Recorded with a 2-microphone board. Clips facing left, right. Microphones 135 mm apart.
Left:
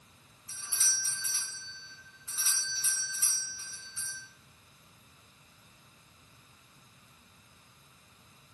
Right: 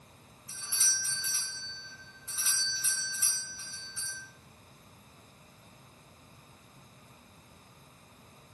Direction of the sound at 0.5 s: Centre (ahead or behind).